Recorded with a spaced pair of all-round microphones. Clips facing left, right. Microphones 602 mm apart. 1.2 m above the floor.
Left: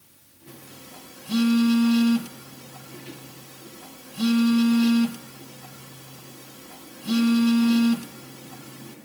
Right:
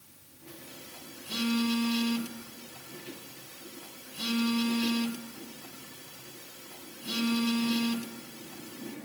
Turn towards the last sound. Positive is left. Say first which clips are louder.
# left 3 dB
turn(degrees=75)  # may be behind; listen again after turning